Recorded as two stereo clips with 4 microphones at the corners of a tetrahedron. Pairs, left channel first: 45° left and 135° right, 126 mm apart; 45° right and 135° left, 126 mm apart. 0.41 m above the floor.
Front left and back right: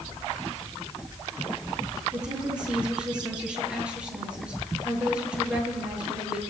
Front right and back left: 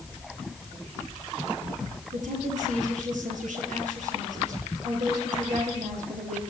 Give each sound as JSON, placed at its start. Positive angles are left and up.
{"t": 2.1, "sound": "a woman speaking", "azimuth_deg": 145, "distance_m": 7.5}